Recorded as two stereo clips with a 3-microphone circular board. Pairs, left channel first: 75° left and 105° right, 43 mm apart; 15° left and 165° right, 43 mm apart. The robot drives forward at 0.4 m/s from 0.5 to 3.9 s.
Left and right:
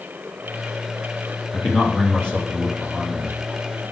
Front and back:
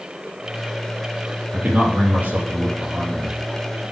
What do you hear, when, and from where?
1.5 s a man speaking: 140° left, 3 m; by 3.4 s 145° left, 3.5 m